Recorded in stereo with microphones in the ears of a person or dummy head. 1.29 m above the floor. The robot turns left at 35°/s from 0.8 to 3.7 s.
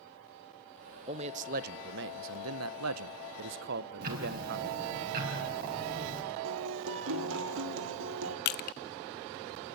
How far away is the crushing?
About 0.6 m.